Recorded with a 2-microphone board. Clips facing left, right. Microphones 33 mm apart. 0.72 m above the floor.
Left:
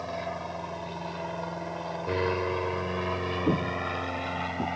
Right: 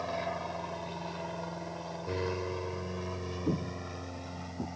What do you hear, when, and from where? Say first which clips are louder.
0.0 s an aircraft: left 1 dB; centre (ahead or behind); by 4.8 s 65° left (ahead or behind)
3.5 s footsteps: left 6 dB; 45° left (ahead or behind); by 4.7 s 30° left (ahead or behind)